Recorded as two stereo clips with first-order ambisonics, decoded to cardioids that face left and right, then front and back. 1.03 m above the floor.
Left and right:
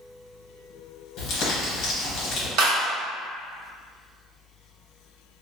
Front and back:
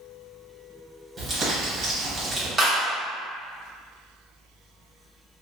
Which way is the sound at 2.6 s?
105° right.